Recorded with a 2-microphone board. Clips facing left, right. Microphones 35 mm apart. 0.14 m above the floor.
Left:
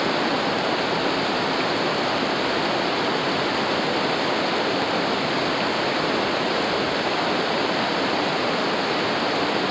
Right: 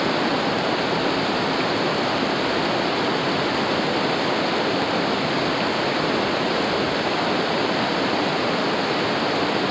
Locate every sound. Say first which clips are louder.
0.0 s running water: right 1 dB; 5° right (ahead or behind)